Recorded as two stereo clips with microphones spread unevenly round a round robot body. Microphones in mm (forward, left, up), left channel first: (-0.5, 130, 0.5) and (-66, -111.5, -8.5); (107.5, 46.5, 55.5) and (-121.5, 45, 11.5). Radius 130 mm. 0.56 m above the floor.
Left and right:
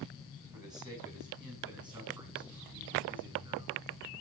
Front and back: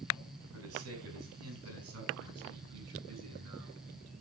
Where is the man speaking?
Straight behind, 5 m; by 3.8 s 175° right, 7 m.